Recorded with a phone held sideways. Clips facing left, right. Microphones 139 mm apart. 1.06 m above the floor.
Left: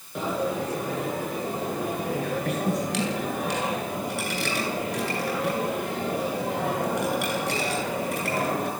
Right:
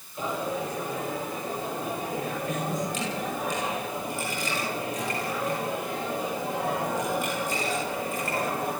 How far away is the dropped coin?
About 9.5 m.